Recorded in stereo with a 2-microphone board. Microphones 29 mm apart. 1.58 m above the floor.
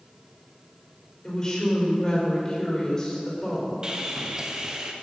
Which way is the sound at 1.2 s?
20° left (ahead or behind).